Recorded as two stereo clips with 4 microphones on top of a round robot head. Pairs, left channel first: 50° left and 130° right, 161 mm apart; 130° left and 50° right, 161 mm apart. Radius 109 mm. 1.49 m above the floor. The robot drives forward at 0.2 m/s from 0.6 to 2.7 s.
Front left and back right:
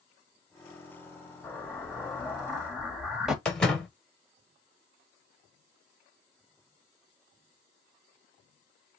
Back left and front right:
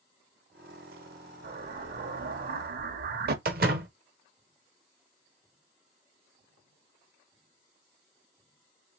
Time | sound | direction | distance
1.4 | an explosion | 35° right | 1.0 m
3.5 | a door slam | 35° right | 0.5 m